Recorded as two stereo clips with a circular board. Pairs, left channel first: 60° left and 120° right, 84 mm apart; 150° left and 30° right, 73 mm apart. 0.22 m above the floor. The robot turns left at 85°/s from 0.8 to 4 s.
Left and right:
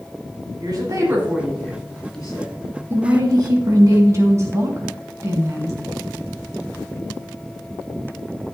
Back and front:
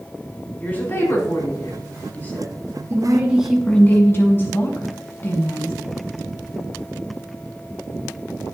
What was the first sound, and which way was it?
A woman speaking, 145° right.